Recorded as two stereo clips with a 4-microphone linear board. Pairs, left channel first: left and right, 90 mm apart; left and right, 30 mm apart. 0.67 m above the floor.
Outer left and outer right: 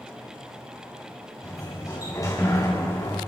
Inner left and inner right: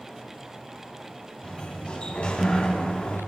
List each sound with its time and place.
1.4 s a sliding door: 35° left (ahead or behind), 6 m